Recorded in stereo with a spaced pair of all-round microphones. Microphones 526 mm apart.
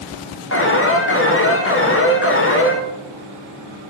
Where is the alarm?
25° left (ahead or behind), 0.5 m.